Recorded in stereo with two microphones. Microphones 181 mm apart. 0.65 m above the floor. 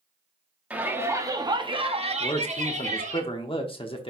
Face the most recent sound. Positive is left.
turn(degrees=30)  # may be behind; listen again after turning